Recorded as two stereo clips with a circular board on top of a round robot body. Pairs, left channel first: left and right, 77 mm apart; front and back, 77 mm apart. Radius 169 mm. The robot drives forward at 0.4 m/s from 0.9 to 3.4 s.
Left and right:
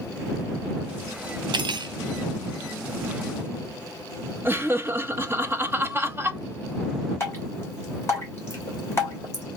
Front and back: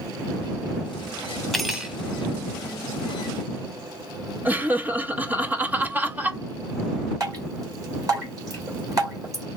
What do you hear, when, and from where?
1.5 s cutlery clinking: 85° right, 0.7 m; by 1.9 s 100° right, 0.7 m
4.5 s laughter: 125° right, 0.8 m
7.2 s dripping: 145° left, 2.5 m